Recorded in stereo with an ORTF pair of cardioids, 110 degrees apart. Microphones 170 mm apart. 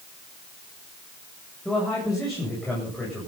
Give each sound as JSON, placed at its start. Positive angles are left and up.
{"t": 1.6, "sound": "a man speaking", "azimuth_deg": 0, "distance_m": 8.5}